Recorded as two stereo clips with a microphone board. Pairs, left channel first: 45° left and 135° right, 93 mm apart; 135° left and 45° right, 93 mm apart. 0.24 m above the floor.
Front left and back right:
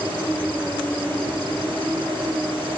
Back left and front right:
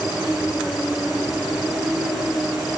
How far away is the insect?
About 4.5 m.